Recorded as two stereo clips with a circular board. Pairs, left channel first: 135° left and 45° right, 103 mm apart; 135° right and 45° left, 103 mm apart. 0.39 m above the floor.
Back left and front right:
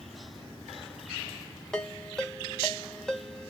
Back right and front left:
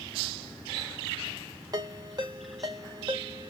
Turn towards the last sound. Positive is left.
turn(degrees=55)